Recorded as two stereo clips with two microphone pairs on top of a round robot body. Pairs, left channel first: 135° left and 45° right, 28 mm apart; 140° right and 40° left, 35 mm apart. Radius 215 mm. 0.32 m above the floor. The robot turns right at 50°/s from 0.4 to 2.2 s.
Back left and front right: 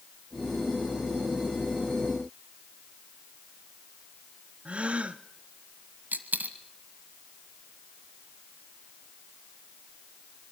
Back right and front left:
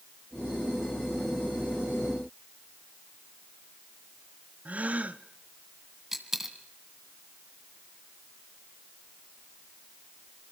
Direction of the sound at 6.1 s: 35° right.